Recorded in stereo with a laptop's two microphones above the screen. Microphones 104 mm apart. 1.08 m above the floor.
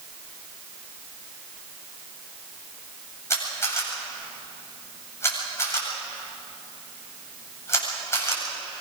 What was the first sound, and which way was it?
A camera shutter, 25° left (ahead or behind).